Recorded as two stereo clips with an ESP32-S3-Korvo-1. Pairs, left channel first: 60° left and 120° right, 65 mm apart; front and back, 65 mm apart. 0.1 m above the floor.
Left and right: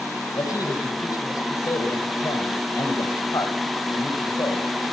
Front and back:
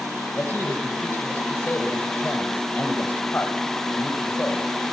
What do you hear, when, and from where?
0.4 s a man speaking: 55° left, 4 m